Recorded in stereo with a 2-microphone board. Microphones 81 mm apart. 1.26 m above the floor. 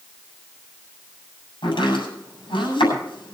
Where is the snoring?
No snoring in this recording.